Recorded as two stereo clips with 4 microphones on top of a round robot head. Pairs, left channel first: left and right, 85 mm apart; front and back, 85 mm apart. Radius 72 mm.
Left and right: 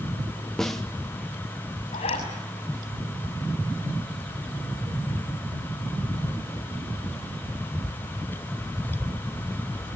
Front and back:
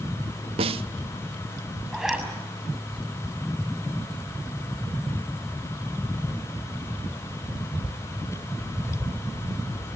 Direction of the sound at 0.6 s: Straight behind.